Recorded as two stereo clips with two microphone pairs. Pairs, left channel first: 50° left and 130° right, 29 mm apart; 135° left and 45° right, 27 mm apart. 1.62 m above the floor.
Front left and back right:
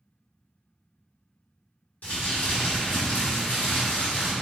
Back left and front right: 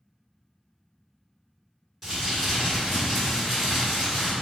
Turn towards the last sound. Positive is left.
turn(degrees=30)